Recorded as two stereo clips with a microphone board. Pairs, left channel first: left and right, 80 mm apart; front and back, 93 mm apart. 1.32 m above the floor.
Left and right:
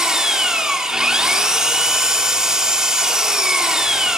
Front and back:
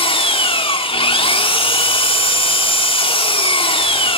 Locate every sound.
0.0 s an engine running: 10° right, 3 m